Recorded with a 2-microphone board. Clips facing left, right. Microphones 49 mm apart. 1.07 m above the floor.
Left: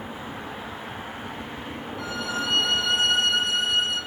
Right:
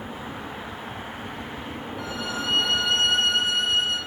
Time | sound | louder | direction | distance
2.0 | a violin | left 2 dB | centre (ahead or behind) | 5.5 m